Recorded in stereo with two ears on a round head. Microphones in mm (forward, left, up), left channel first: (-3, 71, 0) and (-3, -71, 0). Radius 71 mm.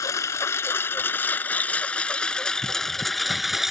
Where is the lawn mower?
20° left (ahead or behind); by 3.7 s centre (ahead or behind).